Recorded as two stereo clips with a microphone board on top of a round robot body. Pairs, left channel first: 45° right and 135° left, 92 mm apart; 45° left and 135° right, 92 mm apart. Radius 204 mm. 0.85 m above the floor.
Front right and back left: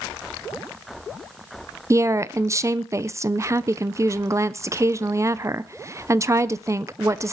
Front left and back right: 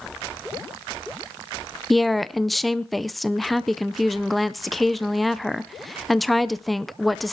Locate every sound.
1.9 s a woman speaking: 135° left, 0.9 m